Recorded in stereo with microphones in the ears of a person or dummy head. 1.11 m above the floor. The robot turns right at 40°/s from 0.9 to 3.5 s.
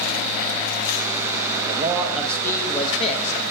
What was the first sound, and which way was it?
A man speaking, 20° right.